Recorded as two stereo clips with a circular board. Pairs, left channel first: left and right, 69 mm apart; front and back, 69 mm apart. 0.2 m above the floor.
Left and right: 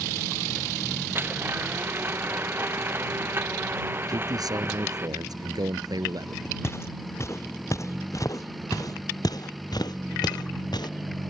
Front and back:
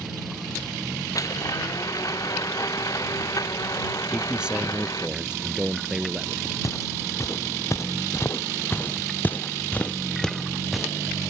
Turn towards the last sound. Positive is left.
turn(degrees=95)